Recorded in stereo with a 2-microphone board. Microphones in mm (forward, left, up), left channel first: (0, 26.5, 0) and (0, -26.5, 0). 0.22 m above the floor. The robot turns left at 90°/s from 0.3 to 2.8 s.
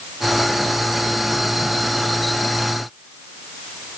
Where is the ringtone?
I don't hear a ringtone.